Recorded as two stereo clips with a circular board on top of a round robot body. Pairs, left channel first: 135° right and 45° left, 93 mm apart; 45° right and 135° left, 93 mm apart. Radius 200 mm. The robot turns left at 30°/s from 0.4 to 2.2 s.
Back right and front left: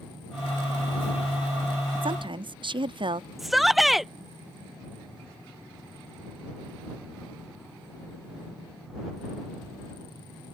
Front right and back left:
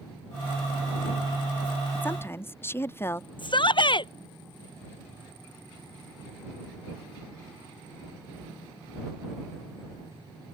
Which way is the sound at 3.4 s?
45° right.